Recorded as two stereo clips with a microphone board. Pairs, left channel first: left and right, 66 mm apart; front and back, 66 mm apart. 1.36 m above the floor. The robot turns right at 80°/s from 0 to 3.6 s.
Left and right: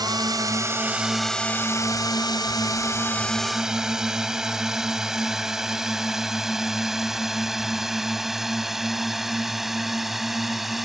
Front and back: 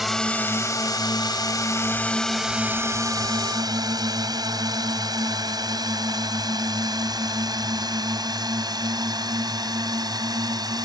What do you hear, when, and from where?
0.0 s a drone: 95° right; by 10.8 s 175° right